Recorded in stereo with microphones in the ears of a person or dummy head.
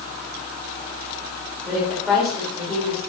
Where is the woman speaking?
5° right (ahead or behind), 3.5 m; by 3.0 s 10° left (ahead or behind), 3.5 m.